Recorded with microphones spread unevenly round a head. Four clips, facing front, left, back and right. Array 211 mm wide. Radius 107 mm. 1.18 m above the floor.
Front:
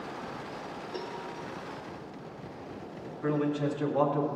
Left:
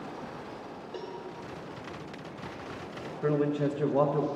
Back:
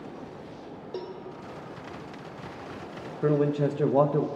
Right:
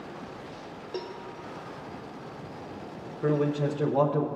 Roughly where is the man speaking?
Behind.